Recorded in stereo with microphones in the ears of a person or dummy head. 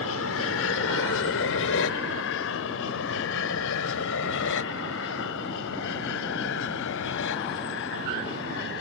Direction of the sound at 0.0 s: 65° left (ahead or behind).